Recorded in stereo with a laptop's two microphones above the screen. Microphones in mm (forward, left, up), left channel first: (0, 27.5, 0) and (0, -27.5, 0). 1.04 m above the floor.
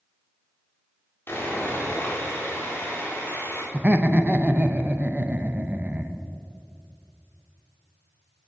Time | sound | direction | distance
1.3 | sawing | 35° left (ahead or behind) | 3 m
3.7 | laughter | 25° right (ahead or behind) | 0.7 m